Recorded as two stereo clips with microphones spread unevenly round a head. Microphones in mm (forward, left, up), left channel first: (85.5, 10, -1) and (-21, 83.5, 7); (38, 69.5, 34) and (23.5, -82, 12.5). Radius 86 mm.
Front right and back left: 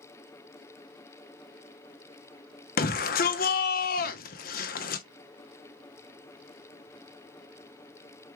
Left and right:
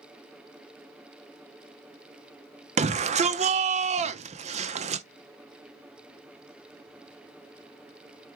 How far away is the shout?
About 0.7 m.